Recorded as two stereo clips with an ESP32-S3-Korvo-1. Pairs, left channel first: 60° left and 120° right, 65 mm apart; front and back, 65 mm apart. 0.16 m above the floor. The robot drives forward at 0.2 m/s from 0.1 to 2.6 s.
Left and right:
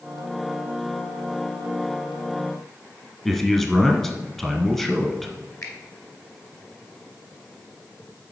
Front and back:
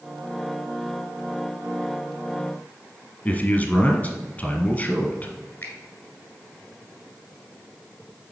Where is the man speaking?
15° right, 1.1 m.